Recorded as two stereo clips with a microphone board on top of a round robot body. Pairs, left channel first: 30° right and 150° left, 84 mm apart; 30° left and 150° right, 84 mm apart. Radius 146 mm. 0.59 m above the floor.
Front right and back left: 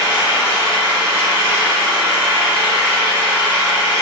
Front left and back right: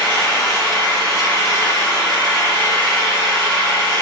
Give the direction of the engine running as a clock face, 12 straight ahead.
1 o'clock.